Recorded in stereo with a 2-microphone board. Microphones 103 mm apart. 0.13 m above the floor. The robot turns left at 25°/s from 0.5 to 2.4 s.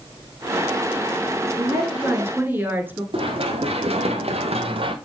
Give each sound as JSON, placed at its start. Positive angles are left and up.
{"t": 1.6, "sound": "a woman speaking", "side_deg": -35, "distance_m": 1.5}
{"t": 3.1, "sound": "running footsteps", "side_deg": -65, "distance_m": 2.5}